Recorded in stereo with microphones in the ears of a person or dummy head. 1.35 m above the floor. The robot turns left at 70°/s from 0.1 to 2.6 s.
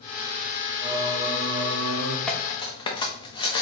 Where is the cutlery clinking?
5° left (ahead or behind), 0.8 m; by 3.6 s 25° left (ahead or behind), 0.8 m.